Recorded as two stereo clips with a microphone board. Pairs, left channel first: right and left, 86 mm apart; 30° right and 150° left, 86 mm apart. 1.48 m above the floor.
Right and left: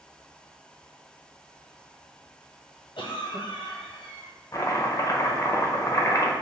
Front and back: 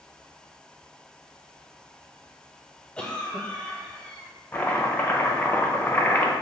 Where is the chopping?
85° right, 0.7 m.